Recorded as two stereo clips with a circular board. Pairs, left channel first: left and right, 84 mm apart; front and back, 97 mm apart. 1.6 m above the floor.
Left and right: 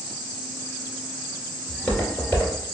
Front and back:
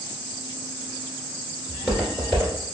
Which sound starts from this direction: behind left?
Footsteps, at 1.7 s.